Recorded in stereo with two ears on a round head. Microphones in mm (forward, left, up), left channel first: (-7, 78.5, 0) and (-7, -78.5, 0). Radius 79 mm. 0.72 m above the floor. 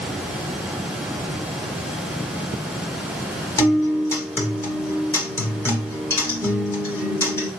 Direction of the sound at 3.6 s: 15° left (ahead or behind).